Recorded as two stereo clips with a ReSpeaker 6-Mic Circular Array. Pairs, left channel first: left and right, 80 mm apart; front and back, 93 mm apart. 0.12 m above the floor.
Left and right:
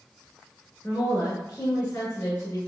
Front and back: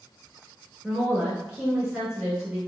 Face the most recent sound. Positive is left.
turn(degrees=100)